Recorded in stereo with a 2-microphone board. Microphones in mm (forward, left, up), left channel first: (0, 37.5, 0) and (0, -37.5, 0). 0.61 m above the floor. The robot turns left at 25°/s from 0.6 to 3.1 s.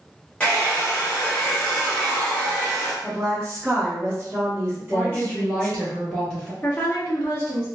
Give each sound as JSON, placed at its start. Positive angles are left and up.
{"t": 0.4, "sound": "a hair dryer", "side_deg": 15, "distance_m": 1.1}
{"t": 3.0, "sound": "a woman speaking", "side_deg": -25, "distance_m": 1.1}
{"t": 4.8, "sound": "a woman speaking", "side_deg": 10, "distance_m": 1.2}
{"t": 6.6, "sound": "a woman speaking", "side_deg": 25, "distance_m": 0.9}